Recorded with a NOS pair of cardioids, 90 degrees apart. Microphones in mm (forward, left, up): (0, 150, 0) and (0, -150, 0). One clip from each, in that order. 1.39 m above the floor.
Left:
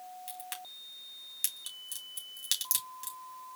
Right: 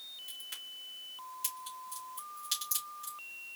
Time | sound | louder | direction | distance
0.3 | a crack | even | 70° left | 2.5 m